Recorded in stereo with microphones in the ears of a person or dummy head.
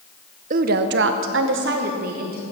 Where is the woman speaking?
45° right (ahead or behind), 0.6 m.